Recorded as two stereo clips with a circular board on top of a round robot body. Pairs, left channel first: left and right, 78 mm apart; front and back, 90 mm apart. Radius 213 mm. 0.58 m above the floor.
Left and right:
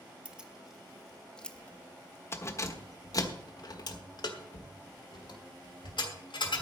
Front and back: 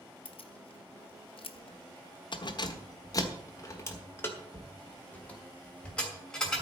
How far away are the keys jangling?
About 1.4 m.